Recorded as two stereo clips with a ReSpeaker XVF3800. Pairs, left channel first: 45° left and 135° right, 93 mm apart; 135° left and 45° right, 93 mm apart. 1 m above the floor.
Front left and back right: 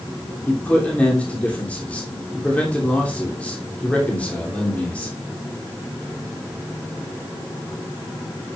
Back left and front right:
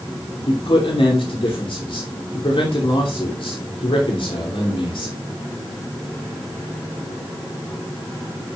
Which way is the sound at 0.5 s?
120° left.